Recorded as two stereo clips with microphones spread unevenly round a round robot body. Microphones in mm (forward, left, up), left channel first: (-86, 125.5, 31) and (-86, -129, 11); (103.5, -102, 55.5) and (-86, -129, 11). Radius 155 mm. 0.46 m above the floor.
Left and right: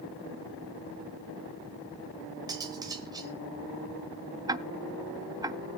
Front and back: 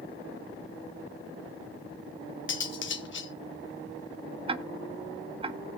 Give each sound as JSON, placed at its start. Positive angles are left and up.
{"t": 2.5, "sound": "cutlery clinking", "azimuth_deg": -15, "distance_m": 1.1}
{"t": 4.5, "sound": "ticking", "azimuth_deg": -155, "distance_m": 0.7}